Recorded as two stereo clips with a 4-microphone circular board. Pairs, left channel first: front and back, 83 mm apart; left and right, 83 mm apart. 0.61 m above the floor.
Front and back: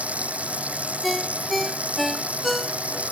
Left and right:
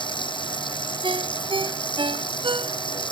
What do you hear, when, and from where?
0.0 s running water: 105° left
1.0 s a ringtone: 90° right